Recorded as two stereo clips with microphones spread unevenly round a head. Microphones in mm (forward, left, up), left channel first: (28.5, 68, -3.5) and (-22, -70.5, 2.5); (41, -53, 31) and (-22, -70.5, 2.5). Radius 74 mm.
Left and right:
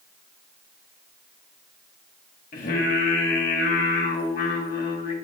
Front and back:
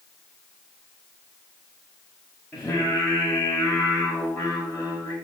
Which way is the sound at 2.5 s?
80° left.